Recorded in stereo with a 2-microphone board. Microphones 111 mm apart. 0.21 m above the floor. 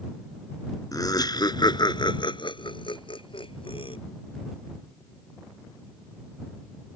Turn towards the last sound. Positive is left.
turn(degrees=55)  # may be behind; listen again after turning